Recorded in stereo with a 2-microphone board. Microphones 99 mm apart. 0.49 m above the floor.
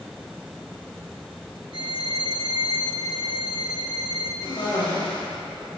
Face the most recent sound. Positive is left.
turn(degrees=55)  # may be behind; listen again after turning